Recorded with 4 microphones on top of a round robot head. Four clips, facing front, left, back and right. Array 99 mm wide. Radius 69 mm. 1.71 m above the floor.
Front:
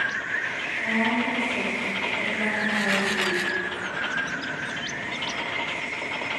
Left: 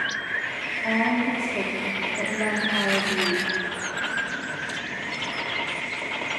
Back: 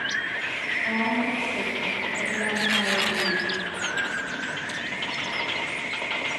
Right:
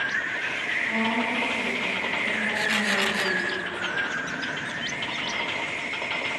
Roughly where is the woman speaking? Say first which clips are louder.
Left 4 dB, front 1 dB; left.